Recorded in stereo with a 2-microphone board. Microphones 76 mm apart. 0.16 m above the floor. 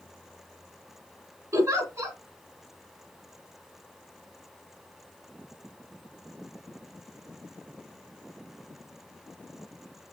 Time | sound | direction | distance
1.5 | a giggle | 40° right (ahead or behind) | 1.5 m